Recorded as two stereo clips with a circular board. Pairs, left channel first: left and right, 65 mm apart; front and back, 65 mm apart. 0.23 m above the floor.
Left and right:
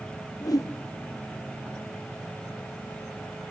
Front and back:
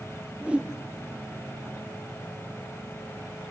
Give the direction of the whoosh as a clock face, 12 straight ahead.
8 o'clock.